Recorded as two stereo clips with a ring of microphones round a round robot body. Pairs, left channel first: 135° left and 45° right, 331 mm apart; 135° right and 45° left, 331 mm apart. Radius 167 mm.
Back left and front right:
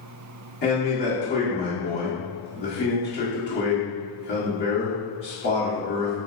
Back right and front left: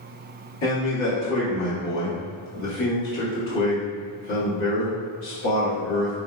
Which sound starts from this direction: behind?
A man speaking, at 0.6 s.